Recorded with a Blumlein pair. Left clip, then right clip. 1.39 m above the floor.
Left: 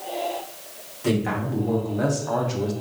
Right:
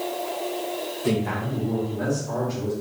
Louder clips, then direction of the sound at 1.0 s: Left 3 dB; 20° left.